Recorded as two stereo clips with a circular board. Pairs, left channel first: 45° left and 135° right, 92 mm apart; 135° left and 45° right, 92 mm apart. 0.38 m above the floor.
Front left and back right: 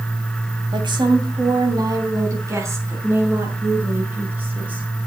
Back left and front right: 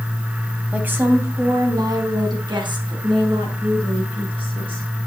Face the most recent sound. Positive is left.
turn(degrees=-65)